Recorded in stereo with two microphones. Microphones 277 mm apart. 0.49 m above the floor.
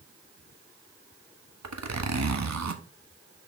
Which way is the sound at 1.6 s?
75° right (ahead or behind).